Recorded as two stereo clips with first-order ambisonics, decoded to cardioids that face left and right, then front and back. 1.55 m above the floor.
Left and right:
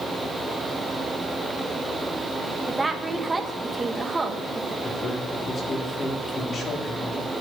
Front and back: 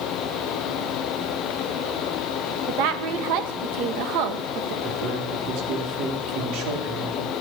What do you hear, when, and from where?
2.7 s a woman speaking: 170° right, 1.4 m
4.8 s a man speaking: 155° left, 3 m